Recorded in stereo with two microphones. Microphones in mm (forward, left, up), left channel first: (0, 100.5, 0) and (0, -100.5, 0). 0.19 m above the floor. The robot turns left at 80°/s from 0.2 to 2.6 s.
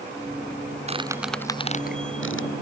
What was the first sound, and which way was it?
A squeak, 35° right (ahead or behind).